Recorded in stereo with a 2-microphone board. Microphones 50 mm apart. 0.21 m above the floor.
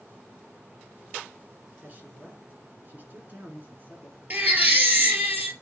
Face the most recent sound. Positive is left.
turn(degrees=-35)  # may be behind; listen again after turning